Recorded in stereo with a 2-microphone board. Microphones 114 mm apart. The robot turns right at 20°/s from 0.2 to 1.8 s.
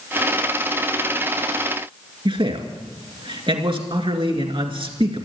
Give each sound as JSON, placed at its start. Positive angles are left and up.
{"t": 2.2, "sound": "a man speaking", "side_deg": -50, "distance_m": 2.0}